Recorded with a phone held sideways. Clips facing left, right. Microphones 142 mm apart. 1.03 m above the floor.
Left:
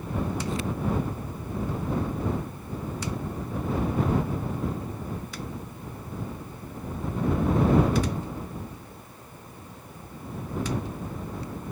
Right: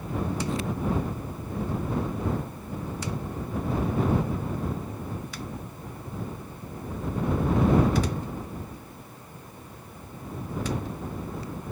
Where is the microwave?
I don't hear a microwave.